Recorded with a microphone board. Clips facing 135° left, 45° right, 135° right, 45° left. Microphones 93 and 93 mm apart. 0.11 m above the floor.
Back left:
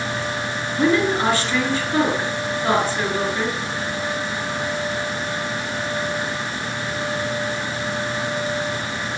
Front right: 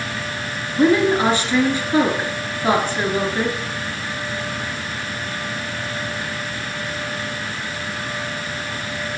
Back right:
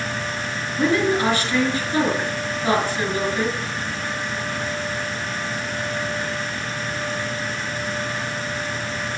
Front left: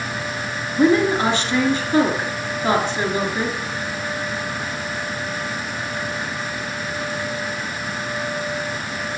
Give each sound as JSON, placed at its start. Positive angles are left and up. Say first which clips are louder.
{"t": 0.8, "sound": "a woman speaking", "louder": "front right 3 dB, front left 4 dB", "azimuth_deg": 10, "distance_m": 1.8}